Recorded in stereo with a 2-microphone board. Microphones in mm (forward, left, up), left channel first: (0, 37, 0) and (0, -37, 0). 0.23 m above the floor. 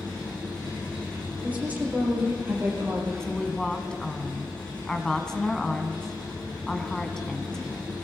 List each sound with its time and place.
0.0 s an engine running: 15° left (ahead or behind), 9 m
1.4 s a woman speaking: 20° right (ahead or behind), 5 m
3.2 s a woman speaking: 10° left (ahead or behind), 1.6 m